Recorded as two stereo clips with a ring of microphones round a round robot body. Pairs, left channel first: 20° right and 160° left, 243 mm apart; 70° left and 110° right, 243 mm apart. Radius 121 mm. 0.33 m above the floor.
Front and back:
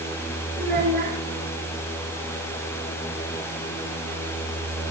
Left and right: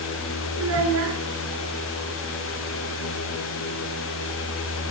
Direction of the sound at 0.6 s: 145° right.